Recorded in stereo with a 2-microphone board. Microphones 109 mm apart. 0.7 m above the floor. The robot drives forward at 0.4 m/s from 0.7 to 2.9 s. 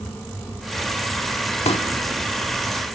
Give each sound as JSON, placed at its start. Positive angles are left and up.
{"t": 1.6, "sound": "a pop", "side_deg": 70, "distance_m": 1.0}